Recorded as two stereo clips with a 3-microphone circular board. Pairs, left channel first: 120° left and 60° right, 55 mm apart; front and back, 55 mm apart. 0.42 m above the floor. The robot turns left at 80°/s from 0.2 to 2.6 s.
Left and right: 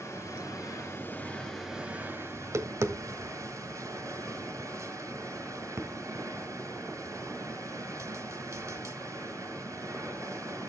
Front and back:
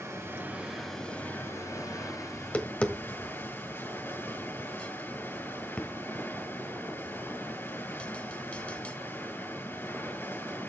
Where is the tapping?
45° right, 1.3 m; by 8.9 s 65° right, 1.3 m.